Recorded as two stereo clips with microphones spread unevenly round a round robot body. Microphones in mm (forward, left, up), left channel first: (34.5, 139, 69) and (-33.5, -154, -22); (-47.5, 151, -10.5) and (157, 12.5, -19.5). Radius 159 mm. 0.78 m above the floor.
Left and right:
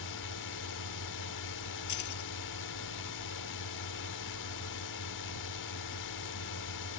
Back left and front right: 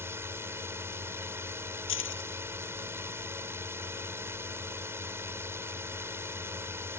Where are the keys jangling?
110° left.